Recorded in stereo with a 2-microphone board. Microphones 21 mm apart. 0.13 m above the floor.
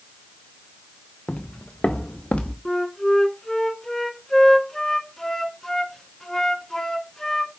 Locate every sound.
1.3 s footsteps: 65° left (ahead or behind), 1.0 m; by 2.5 s 85° left, 1.9 m
2.6 s a flute: 20° left (ahead or behind), 0.8 m